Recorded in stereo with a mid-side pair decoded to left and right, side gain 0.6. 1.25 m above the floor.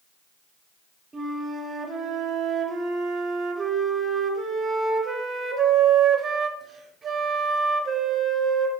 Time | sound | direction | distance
1.1 | a flute | 30° right | 0.5 m